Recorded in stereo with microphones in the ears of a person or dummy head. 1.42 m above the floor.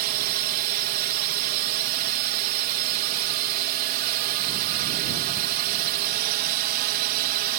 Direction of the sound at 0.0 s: 50° right (ahead or behind).